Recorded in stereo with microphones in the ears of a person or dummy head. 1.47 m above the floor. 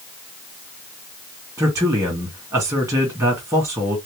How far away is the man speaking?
About 2.5 m.